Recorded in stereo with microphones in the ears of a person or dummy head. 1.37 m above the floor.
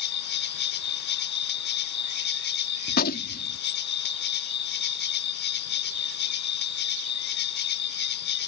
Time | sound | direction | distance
0.0 | an insect | 55° left (ahead or behind) | ?
2.9 | a gunshot | 45° left (ahead or behind) | ?